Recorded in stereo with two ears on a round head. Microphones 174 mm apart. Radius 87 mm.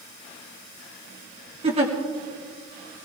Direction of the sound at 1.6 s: 30° right (ahead or behind).